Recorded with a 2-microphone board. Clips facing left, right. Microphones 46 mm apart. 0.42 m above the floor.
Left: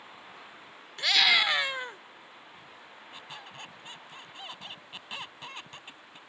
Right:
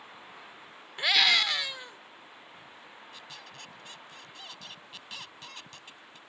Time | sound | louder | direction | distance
1.0 | a scream | left 1 dB | 15° right (ahead or behind) | ?
3.1 | a squeak | left 5 dB | 25° left (ahead or behind) | ?